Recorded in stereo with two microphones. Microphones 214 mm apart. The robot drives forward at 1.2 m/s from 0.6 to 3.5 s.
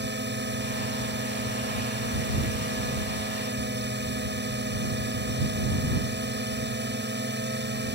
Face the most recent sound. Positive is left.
turn(degrees=-60)  # may be behind; listen again after turning